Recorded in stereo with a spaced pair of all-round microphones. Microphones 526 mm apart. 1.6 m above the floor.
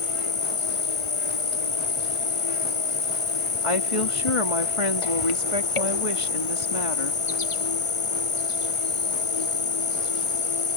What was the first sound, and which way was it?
An insect, 65° left (ahead or behind).